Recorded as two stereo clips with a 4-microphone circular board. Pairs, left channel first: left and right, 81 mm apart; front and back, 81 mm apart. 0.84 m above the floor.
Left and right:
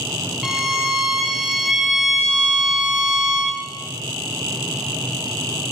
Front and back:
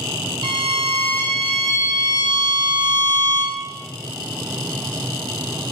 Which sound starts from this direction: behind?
A violin, at 0.4 s.